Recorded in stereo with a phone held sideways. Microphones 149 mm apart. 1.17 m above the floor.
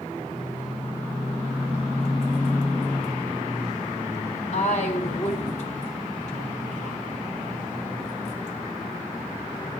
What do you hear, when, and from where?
4.5 s a woman speaking: 55° left (ahead or behind), 3.5 m